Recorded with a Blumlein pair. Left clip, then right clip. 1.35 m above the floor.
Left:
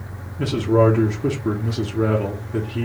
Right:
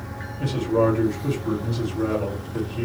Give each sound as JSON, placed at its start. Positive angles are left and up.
{"t": 0.4, "sound": "a man speaking", "azimuth_deg": 40, "distance_m": 1.3}